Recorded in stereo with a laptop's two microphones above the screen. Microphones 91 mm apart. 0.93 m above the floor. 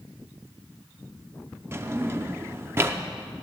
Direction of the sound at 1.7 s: 25° right (ahead or behind).